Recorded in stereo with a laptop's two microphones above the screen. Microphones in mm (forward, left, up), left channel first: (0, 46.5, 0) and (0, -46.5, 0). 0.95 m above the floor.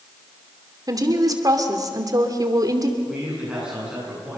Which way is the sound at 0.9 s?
40° right (ahead or behind).